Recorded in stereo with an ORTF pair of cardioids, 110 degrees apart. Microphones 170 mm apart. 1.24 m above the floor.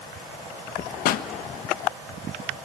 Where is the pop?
70° left, 0.8 m.